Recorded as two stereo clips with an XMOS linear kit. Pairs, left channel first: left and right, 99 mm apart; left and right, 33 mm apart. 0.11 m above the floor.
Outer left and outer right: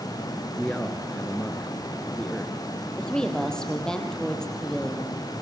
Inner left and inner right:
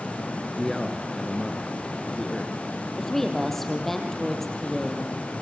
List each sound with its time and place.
0.6 s a man speaking: 10° left (ahead or behind), 1.4 m
3.0 s a woman speaking: 5° left (ahead or behind), 3.5 m